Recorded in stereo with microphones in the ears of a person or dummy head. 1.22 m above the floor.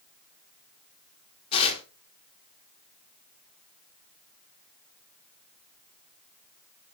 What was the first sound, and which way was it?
Tearing paper, 30° left (ahead or behind).